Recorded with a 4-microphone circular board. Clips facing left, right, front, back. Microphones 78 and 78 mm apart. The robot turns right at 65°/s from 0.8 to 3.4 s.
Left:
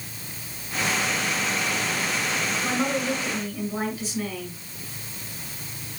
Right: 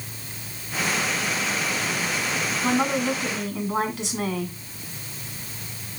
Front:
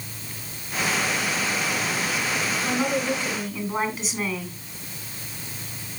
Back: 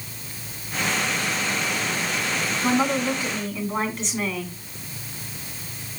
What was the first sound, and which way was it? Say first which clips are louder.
A woman speaking: right 4 dB, back 4 dB; 135° right.